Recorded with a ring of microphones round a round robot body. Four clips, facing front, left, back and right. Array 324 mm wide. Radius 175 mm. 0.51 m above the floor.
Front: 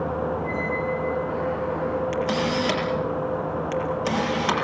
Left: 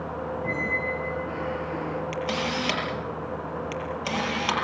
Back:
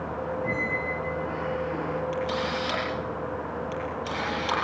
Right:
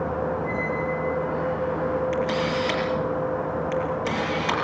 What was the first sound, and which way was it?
A squeak, 120° left.